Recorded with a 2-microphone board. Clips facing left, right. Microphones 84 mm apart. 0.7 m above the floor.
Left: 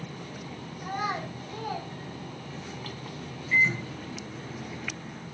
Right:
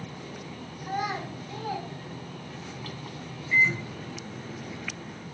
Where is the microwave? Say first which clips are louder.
Right 1 dB; 5° right (ahead or behind), 0.6 m.